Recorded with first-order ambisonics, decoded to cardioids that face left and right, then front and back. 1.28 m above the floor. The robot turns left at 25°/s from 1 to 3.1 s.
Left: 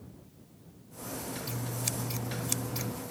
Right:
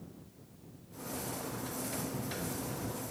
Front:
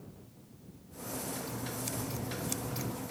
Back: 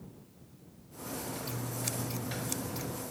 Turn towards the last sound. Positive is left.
turn(degrees=80)